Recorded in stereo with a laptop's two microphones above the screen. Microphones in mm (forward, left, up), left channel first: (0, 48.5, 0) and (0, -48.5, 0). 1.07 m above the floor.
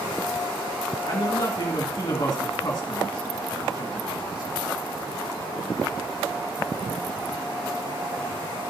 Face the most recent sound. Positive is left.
turn(degrees=45)  # may be behind; listen again after turning